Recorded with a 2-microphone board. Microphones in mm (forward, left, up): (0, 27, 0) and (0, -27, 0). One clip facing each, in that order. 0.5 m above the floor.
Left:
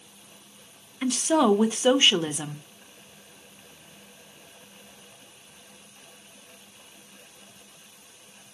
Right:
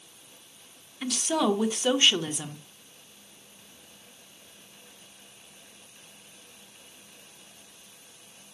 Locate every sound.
1.0 s a woman speaking: 20° left (ahead or behind), 1.0 m